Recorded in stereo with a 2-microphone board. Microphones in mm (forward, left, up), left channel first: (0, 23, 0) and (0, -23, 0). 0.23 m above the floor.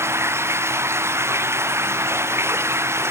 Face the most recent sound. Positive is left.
turn(degrees=-75)  # may be behind; listen again after turning